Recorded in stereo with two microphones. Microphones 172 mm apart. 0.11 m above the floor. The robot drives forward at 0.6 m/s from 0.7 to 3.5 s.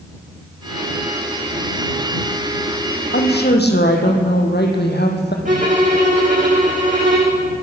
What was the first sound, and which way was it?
A woman speaking, 70° left (ahead or behind).